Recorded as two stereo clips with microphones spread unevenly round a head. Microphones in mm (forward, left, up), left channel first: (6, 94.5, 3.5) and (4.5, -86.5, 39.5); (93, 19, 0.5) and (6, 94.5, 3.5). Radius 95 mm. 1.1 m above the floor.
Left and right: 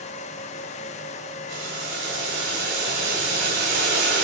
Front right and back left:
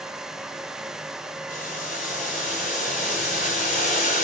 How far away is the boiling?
About 3 m.